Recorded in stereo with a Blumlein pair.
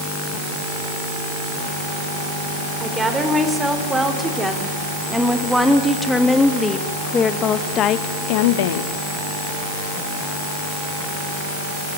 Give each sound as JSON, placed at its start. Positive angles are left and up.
{"t": 2.8, "sound": "a woman speaking", "azimuth_deg": -10, "distance_m": 5.0}